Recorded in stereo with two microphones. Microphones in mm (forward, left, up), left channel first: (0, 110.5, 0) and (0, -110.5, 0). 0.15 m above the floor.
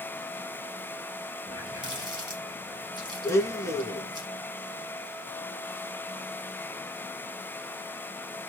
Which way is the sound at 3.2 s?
10° left (ahead or behind).